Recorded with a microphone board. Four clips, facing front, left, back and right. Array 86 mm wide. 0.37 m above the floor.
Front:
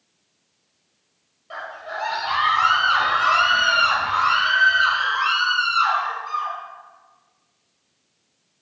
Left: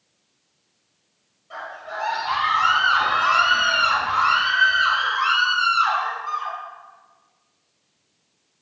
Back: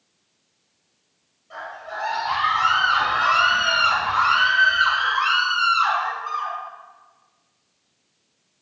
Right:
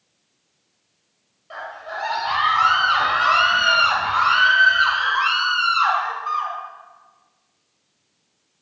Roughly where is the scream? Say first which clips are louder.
Right 1 dB, front 1 dB; ahead right.